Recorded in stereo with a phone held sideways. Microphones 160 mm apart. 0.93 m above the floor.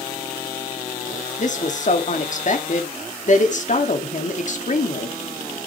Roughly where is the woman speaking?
Left.